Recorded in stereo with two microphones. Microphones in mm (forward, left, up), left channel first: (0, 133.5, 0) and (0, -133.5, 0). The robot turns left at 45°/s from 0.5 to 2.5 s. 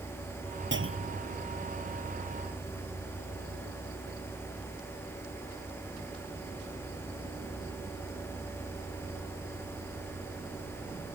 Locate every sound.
0.7 s a clunk: 45° right (ahead or behind); by 1.2 s 70° right (ahead or behind)